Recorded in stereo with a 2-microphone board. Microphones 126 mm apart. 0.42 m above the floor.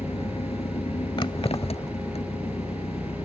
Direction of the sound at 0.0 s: 60° left (ahead or behind).